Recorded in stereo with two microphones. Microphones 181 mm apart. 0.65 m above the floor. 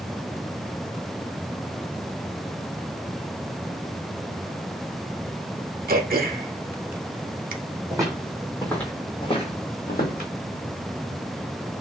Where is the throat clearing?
55° right (ahead or behind), 0.5 m.